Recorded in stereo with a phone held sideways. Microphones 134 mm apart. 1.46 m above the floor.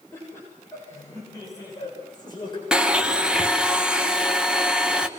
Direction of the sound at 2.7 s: 5° right (ahead or behind).